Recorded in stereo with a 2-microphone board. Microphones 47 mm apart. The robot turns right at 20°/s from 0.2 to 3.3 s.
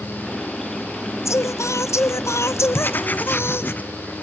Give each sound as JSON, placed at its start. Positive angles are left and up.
{"t": 1.2, "sound": "singing", "azimuth_deg": 80, "distance_m": 0.7}
{"t": 2.7, "sound": "writing", "side_deg": 45, "distance_m": 0.8}